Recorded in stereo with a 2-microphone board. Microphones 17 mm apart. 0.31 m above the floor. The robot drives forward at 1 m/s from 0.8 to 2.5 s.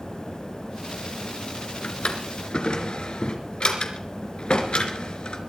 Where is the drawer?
75° left (ahead or behind), 2.5 m; by 5.4 s 65° left (ahead or behind), 3 m.